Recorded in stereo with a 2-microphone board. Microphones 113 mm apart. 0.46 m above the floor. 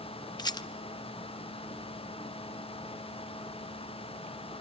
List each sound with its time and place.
0.4 s a rattle: 35° left (ahead or behind), 0.7 m